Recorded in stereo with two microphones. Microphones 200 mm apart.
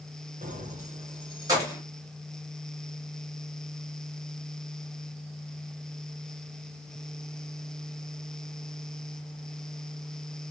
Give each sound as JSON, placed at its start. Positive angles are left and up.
{"t": 0.4, "sound": "keys jangling", "side_deg": -45, "distance_m": 0.9}